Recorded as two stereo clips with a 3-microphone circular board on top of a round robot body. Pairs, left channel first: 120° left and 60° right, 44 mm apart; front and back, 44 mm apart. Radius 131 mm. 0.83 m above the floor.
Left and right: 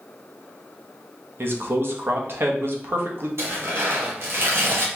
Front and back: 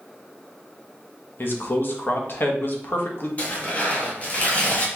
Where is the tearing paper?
55° right, 1.7 m.